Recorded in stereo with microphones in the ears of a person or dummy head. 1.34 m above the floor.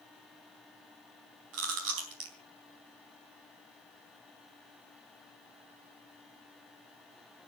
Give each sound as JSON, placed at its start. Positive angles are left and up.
{"t": 1.5, "sound": "chewing", "side_deg": -70, "distance_m": 3.5}